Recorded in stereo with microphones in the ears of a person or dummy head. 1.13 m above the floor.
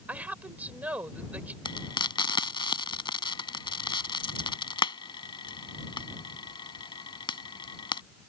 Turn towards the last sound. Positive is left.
turn(degrees=30)  # may be behind; listen again after turning